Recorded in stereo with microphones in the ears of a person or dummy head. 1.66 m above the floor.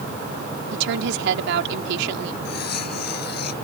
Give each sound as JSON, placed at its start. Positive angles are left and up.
{"t": 0.7, "sound": "a woman speaking", "side_deg": -75}
{"t": 2.5, "sound": "cutlery clinking", "side_deg": 60}